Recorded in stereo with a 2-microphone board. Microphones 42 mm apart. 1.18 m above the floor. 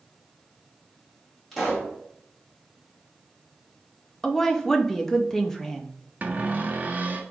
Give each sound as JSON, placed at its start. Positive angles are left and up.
{"t": 1.5, "sound": "a pop", "side_deg": 5, "distance_m": 2.0}
{"t": 4.2, "sound": "a woman speaking", "side_deg": 10, "distance_m": 0.5}
{"t": 6.2, "sound": "a cupboard door", "side_deg": -40, "distance_m": 0.6}